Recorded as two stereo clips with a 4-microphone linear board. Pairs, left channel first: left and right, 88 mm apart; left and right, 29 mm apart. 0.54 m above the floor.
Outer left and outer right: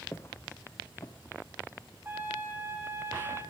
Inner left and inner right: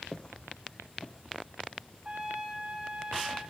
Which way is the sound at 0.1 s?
25° left (ahead or behind).